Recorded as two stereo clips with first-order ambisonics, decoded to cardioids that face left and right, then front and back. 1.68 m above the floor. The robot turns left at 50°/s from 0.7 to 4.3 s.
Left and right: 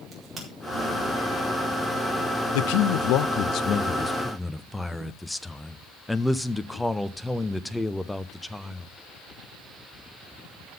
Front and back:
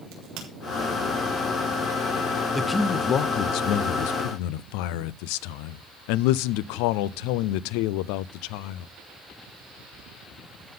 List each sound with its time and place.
0.1 s a crack: 170° right, 4 m
2.5 s a man speaking: 90° left, 0.5 m; by 8.9 s straight ahead, 0.5 m